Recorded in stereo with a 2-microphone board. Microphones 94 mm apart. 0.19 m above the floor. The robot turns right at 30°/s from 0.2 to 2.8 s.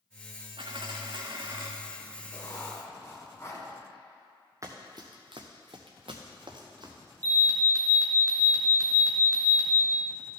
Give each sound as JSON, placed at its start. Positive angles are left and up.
{"t": 0.6, "sound": "a dropped coin", "azimuth_deg": -70, "distance_m": 1.2}
{"t": 2.3, "sound": "writing", "side_deg": 40, "distance_m": 1.6}
{"t": 4.6, "sound": "running footsteps", "side_deg": -35, "distance_m": 1.3}
{"t": 7.2, "sound": "an alarm", "side_deg": -35, "distance_m": 1.3}